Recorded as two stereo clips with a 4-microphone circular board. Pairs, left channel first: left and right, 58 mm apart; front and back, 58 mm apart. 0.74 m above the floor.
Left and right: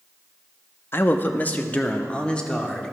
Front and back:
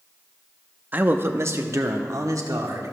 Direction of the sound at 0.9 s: 130° left.